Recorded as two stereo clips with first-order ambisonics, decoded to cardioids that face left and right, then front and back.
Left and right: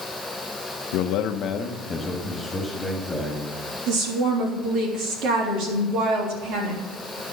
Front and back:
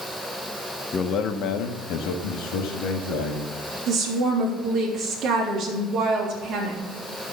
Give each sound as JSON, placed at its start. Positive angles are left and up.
{"t": 0.9, "sound": "a man speaking", "azimuth_deg": 70, "distance_m": 1.0}
{"t": 3.9, "sound": "a woman speaking", "azimuth_deg": -125, "distance_m": 3.5}